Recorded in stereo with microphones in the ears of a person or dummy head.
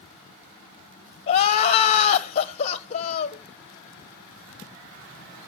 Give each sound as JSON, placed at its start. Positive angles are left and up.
{"t": 1.3, "sound": "crying", "side_deg": 45, "distance_m": 1.4}